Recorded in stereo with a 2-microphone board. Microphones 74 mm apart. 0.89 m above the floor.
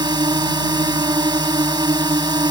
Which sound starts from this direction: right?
A drone, at 0.0 s.